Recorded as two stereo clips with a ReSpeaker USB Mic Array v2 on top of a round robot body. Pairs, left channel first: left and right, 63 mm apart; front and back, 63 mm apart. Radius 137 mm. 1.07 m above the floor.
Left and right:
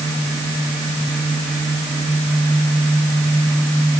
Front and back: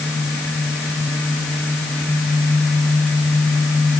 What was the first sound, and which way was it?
Only background noise.